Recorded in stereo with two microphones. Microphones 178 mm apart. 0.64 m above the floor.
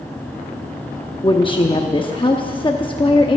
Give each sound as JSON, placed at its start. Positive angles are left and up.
{"t": 1.2, "sound": "a woman speaking", "side_deg": 30, "distance_m": 0.8}